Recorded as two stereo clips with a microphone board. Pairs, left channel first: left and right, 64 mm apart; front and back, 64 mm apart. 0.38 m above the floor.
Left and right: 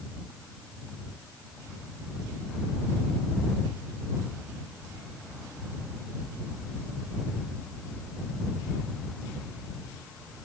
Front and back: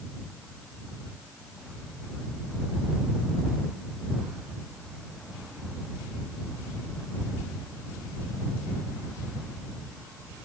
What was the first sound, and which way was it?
Only background noise.